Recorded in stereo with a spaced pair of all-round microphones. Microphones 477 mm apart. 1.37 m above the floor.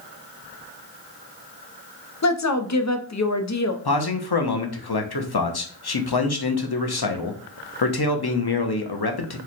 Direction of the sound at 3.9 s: 55° left (ahead or behind).